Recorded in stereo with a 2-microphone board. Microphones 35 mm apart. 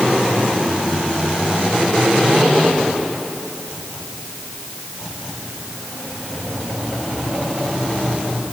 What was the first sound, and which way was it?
Only background noise.